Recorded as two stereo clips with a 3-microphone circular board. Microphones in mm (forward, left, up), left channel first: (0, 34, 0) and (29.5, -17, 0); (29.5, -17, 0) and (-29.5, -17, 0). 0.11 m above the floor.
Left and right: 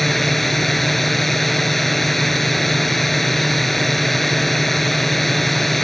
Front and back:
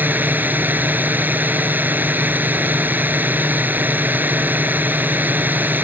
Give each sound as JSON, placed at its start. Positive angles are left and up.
{"t": 0.0, "sound": "a drone", "azimuth_deg": -155}